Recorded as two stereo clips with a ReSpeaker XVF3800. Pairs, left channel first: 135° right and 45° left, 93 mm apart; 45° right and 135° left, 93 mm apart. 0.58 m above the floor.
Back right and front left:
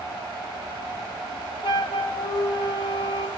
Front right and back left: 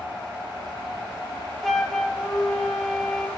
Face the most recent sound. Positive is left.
turn(degrees=-130)